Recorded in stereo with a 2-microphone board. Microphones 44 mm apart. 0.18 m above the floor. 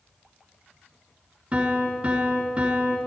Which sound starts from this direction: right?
A piano, at 1.5 s.